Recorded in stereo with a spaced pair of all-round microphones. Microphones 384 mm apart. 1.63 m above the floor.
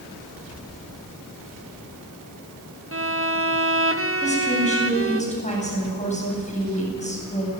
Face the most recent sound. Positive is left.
turn(degrees=20)  # may be behind; listen again after turning